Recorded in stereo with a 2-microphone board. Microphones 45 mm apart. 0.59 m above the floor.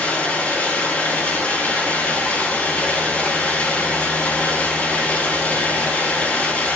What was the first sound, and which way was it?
Running water, 35° left (ahead or behind).